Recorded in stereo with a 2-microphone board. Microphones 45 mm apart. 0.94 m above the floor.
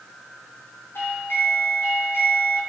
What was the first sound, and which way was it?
A doorbell, 70° left (ahead or behind).